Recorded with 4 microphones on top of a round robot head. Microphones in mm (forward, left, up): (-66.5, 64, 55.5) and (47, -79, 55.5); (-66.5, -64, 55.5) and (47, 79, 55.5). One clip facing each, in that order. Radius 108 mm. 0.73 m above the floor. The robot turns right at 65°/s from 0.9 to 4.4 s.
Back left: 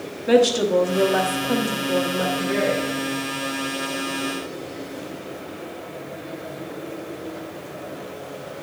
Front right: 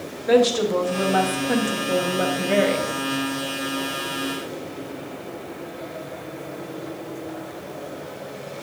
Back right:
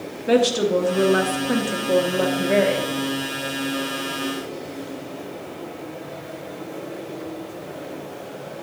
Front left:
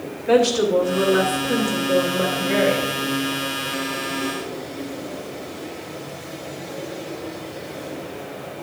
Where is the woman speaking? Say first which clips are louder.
Back left 1 dB, front left 1 dB; 175° right, 1.2 m; by 2.9 s 40° right, 1.2 m.